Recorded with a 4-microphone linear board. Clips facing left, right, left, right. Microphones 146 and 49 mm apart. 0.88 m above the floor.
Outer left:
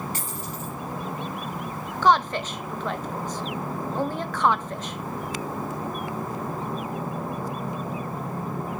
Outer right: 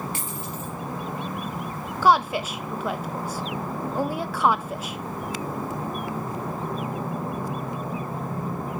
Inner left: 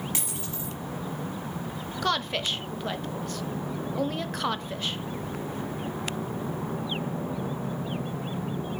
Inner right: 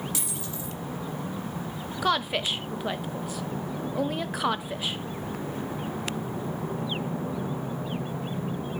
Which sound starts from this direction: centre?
A woman speaking, at 2.0 s.